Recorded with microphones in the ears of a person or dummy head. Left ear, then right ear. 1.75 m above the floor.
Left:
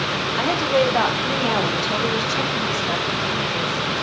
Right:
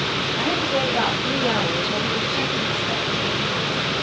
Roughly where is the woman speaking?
Left.